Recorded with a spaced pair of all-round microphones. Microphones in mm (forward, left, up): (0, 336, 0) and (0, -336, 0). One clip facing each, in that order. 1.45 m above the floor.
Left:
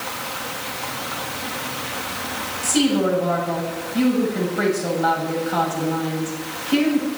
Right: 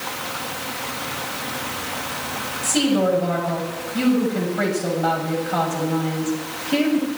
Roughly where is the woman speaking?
Centre.